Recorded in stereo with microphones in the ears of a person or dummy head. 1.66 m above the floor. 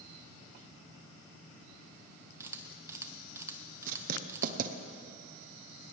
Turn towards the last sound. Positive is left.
turn(degrees=-45)  # may be behind; listen again after turning